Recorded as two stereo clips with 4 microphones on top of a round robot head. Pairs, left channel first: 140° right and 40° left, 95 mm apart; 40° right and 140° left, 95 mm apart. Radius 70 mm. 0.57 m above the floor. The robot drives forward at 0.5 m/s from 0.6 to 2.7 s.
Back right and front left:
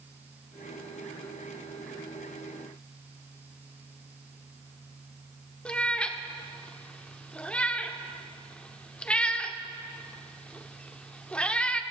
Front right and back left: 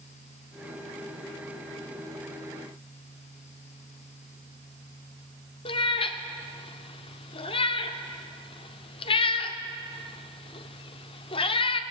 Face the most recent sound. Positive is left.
turn(degrees=-65)